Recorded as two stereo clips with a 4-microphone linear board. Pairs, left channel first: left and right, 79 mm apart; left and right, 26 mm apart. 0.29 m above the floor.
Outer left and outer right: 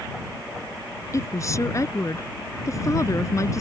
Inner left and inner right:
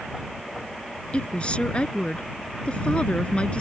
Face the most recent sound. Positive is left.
turn(degrees=40)  # may be behind; listen again after turning